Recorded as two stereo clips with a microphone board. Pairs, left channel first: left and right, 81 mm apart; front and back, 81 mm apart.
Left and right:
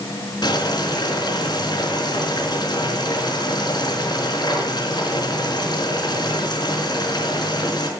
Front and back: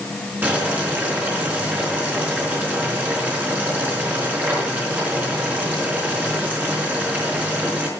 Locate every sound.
0.4 s boiling: 115° left, 4 m